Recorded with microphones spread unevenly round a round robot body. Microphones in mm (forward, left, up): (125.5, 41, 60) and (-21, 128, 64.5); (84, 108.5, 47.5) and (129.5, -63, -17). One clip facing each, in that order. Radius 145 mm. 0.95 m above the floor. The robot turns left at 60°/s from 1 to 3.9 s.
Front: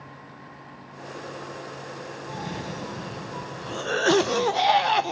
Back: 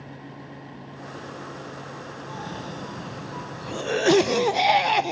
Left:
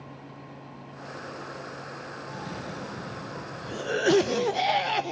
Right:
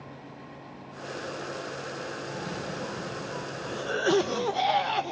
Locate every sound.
2.3 s a cough: 65° right, 0.6 m; by 5.1 s 160° right, 0.6 m